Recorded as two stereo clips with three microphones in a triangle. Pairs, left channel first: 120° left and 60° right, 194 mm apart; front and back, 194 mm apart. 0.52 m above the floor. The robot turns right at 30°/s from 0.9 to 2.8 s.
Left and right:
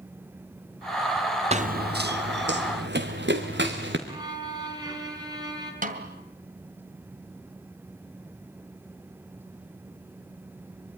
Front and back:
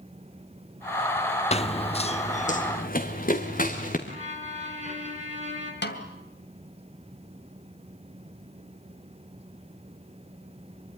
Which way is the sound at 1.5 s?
30° right.